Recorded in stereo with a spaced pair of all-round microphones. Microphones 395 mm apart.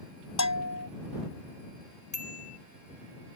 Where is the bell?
45° left (ahead or behind).